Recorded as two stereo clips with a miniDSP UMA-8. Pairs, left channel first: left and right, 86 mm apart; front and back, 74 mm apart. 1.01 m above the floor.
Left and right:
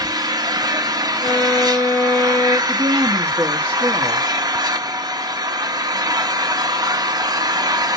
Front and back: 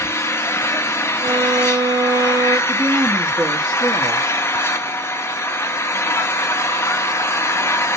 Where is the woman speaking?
145° right, 1.4 m.